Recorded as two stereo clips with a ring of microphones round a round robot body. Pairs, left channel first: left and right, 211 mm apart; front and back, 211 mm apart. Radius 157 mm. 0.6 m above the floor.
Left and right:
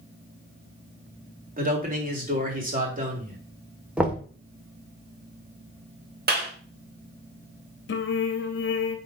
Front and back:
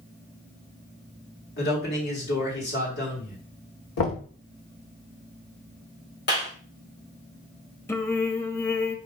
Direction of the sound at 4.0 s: 5° right.